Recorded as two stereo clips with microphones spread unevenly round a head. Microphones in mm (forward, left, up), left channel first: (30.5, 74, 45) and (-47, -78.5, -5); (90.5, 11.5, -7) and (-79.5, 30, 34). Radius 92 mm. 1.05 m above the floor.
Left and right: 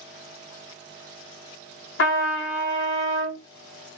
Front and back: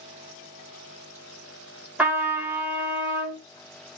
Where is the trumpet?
85° left, 1.3 m.